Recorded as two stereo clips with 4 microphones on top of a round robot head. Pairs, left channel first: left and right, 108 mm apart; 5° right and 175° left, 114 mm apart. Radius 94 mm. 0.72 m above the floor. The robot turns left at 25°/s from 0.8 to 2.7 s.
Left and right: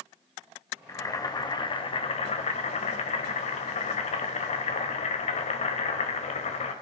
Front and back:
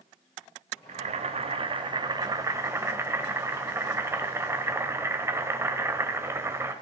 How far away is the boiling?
About 1.3 m.